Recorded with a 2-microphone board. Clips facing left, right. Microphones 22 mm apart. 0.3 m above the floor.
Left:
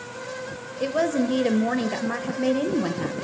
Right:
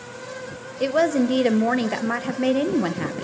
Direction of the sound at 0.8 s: 20° right (ahead or behind).